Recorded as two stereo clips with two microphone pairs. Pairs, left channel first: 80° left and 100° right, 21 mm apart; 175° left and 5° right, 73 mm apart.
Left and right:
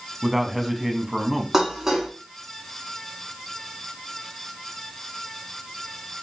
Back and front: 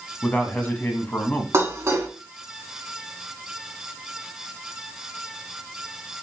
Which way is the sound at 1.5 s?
40° right.